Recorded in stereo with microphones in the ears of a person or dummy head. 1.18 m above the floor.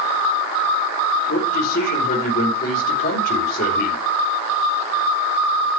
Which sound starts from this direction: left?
A man speaking, at 1.3 s.